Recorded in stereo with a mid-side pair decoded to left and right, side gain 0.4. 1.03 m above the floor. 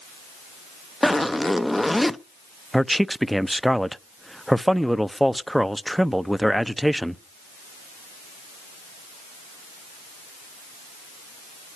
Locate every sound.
1.0 s a zipper: 5° left, 0.6 m
2.7 s a man speaking: 5° right, 0.6 m